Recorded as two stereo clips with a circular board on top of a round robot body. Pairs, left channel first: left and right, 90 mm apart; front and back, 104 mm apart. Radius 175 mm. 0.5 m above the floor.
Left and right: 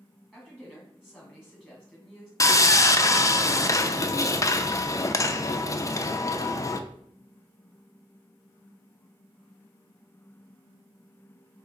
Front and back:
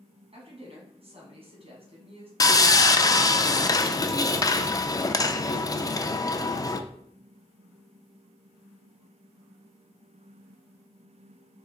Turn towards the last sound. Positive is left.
turn(degrees=45)